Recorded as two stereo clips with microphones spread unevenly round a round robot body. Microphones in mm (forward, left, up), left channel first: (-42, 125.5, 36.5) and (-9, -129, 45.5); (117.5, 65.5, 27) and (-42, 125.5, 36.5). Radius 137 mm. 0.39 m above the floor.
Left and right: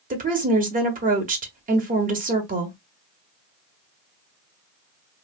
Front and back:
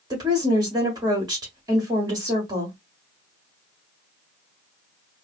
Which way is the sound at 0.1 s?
135° right.